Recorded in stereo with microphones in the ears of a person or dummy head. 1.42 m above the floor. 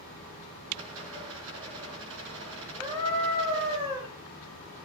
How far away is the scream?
About 5 m.